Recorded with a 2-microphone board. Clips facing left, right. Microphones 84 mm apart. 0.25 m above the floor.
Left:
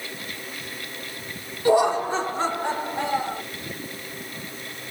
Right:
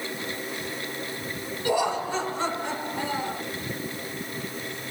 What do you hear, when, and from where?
1.6 s laughter: 35° left (ahead or behind), 2.5 m; by 3.4 s 40° left (ahead or behind), 4 m